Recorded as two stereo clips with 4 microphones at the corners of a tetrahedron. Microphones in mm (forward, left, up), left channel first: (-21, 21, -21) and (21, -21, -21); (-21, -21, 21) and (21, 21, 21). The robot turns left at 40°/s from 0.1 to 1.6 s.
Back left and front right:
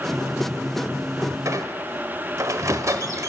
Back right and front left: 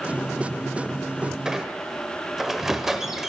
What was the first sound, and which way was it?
A squeak, 30° right.